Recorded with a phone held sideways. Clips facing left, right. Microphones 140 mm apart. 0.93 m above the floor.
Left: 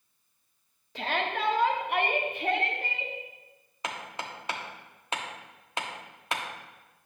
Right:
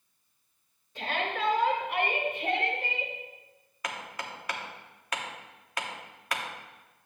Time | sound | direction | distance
0.9 | a shout | 75° left (ahead or behind) | 1.6 m
3.8 | hammering | 25° left (ahead or behind) | 1.0 m